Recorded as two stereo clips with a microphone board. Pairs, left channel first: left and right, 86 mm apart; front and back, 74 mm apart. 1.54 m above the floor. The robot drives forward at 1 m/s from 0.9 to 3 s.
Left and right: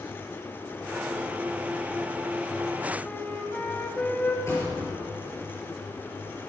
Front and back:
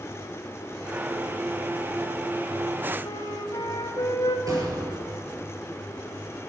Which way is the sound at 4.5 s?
145° left.